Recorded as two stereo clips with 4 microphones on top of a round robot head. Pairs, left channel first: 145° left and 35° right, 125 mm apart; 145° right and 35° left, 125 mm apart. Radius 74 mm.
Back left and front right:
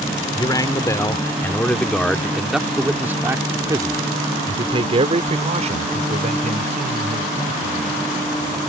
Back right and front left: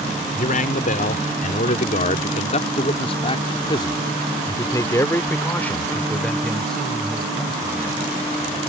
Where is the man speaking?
155° right; by 8.1 s 50° right.